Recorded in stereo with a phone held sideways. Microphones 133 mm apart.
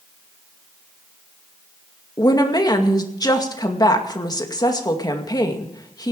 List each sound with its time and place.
2.2 s a woman speaking: 30° left (ahead or behind), 2 m